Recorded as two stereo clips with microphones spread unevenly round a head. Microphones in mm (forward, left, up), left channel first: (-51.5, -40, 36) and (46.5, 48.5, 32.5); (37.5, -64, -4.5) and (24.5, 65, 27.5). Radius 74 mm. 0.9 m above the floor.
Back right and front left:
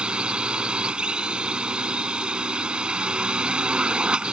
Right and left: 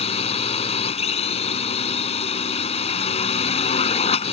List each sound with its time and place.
0.0 s a drone: 40° right